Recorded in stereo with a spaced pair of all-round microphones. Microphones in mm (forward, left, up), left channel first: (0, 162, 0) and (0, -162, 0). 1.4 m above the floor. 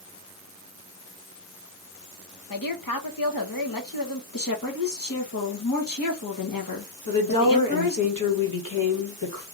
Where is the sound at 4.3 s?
85° left, 1.4 m.